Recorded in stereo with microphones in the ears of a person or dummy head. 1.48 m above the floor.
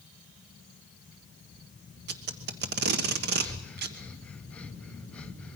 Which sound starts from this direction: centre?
Breathing, at 3.4 s.